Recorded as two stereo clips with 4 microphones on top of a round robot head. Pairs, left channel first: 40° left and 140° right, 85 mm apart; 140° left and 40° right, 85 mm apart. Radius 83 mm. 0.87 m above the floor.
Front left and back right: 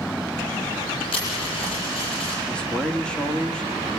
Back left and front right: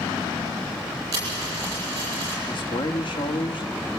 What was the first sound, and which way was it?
A dropped coin, 15° left.